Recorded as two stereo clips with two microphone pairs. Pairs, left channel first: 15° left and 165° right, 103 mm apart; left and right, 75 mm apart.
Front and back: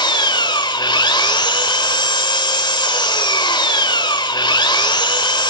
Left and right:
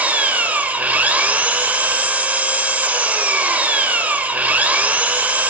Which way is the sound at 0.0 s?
20° right.